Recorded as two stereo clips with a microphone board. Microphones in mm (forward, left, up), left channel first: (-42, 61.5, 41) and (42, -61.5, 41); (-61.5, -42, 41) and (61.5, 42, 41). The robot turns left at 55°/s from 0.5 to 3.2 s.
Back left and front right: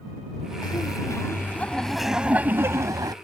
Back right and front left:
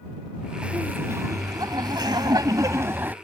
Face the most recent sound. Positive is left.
turn(degrees=-30)